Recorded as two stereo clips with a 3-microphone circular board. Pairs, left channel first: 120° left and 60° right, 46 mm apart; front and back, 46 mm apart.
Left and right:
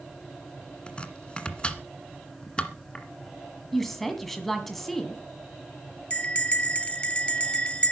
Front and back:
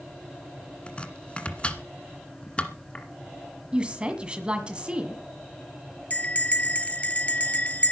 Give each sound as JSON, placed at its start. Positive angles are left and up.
{"t": 0.9, "sound": "chopping", "azimuth_deg": 60, "distance_m": 1.5}
{"t": 3.7, "sound": "a woman speaking", "azimuth_deg": -160, "distance_m": 1.5}
{"t": 6.1, "sound": "a bell", "azimuth_deg": 55, "distance_m": 0.8}